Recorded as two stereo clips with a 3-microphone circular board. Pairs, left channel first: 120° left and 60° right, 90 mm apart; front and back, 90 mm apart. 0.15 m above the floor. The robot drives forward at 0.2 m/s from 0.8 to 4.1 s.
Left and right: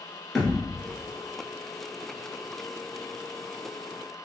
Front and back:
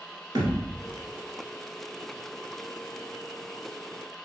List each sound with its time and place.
0.3 s a thud: 155° right, 1.2 m